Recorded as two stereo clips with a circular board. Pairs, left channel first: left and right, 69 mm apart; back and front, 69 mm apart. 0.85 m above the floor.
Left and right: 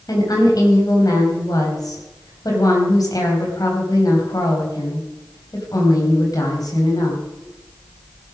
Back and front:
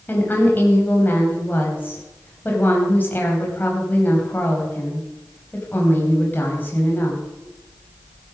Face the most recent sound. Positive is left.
turn(degrees=115)